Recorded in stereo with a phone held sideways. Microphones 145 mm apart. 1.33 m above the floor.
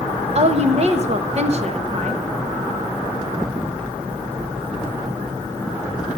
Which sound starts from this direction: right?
A woman speaking, at 0.3 s.